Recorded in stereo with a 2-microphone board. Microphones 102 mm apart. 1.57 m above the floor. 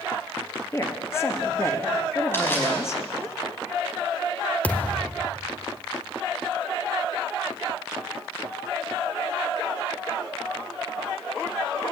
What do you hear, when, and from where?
0.7 s a woman speaking: 25° left (ahead or behind), 2 m
2.3 s crushing: 25° left (ahead or behind), 5 m
4.6 s a thud: 15° left (ahead or behind), 1.5 m